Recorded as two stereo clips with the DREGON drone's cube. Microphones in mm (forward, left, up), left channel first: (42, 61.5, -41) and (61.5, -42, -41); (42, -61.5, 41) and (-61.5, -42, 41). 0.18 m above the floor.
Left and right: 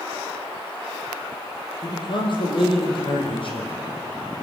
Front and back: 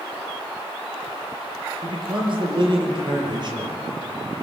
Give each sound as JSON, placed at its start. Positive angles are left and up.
{"t": 1.8, "sound": "a man speaking", "azimuth_deg": 140, "distance_m": 4.5}